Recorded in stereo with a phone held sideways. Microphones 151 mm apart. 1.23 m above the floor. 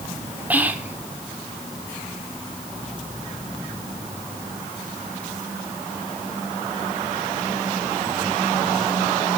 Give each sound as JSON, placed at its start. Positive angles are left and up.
{"t": 0.5, "sound": "whispering", "side_deg": -10, "distance_m": 0.8}